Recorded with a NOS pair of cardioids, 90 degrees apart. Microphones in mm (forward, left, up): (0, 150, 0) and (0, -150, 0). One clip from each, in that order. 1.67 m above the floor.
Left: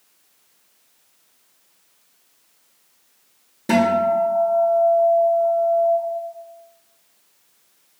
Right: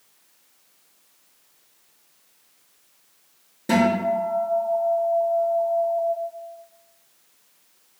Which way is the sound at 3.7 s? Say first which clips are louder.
Left 3 dB; 10° left.